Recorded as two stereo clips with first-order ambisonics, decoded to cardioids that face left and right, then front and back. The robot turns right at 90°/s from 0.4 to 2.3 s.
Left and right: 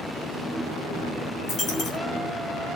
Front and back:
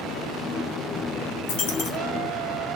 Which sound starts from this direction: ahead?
A dropped coin, at 1.5 s.